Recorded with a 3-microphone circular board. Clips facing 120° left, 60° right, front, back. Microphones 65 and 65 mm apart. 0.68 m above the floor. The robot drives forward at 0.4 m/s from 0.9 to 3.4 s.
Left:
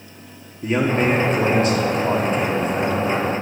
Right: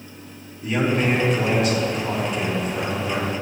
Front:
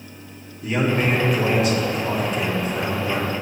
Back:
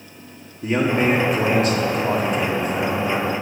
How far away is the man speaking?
About 1.3 m.